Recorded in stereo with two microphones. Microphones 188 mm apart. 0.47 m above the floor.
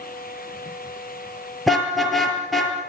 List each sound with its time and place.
1.7 s a car horn: centre (ahead or behind), 5.5 m